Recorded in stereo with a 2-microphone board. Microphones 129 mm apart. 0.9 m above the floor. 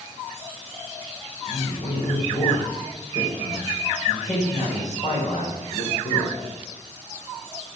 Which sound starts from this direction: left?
A man speaking, at 1.5 s.